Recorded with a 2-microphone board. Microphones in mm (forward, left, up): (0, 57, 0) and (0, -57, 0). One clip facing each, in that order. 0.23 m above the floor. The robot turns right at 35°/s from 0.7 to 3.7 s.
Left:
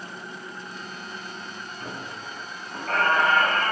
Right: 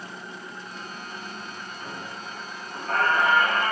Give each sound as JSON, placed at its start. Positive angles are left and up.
{"t": 1.8, "sound": "a squeak", "azimuth_deg": 55, "distance_m": 4.0}